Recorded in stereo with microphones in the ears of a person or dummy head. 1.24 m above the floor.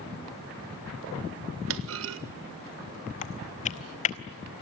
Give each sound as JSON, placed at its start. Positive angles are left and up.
{"t": 1.7, "sound": "a clunk", "side_deg": -70, "distance_m": 1.5}
{"t": 3.2, "sound": "typing on a keyboard", "side_deg": 35, "distance_m": 0.9}